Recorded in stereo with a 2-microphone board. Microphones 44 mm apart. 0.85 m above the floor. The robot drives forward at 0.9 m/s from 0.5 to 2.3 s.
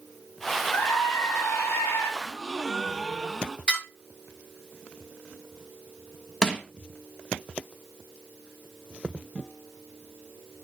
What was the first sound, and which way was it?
A scream, 75° left (ahead or behind).